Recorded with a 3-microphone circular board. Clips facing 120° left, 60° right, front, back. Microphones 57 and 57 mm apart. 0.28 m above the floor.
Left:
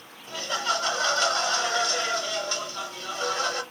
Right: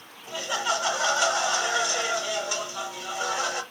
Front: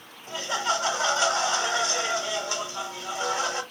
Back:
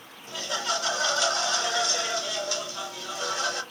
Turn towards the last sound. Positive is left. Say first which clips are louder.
# even, front 3 dB
turn(degrees=0)